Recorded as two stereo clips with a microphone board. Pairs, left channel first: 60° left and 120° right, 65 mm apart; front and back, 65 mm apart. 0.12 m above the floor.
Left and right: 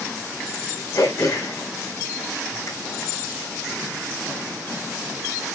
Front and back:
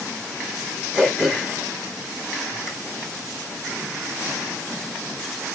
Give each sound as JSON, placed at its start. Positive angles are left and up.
{"t": 0.9, "sound": "throat clearing", "azimuth_deg": 100, "distance_m": 4.5}